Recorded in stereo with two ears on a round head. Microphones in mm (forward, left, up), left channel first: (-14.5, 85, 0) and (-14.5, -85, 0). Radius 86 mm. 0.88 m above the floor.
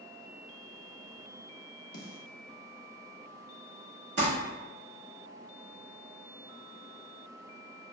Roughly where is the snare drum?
Left.